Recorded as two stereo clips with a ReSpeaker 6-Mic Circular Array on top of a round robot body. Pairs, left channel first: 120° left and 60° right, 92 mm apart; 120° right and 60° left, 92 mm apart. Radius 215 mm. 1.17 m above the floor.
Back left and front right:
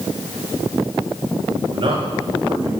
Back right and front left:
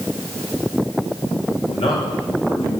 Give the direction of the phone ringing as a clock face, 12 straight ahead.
No phone ringing in this recording.